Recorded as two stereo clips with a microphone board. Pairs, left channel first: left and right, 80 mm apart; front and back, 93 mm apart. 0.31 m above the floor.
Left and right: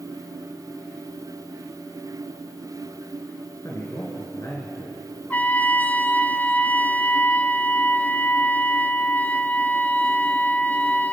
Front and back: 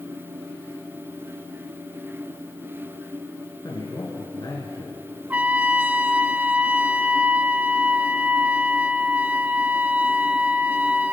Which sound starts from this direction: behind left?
A trumpet, at 5.3 s.